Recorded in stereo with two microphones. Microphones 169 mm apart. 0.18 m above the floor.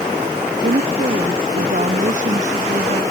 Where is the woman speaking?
60° right (ahead or behind); by 3.0 s 40° right (ahead or behind).